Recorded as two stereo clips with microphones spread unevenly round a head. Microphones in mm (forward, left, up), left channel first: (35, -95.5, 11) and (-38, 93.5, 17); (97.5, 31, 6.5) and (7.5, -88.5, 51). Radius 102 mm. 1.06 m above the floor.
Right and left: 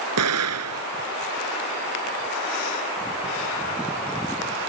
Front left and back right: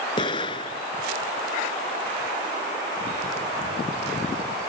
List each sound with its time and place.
0.2 s an explosion: 120° left